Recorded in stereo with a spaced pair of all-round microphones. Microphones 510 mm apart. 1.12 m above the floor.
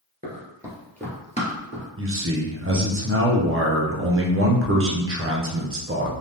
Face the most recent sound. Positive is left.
turn(degrees=-25)  # may be behind; listen again after turning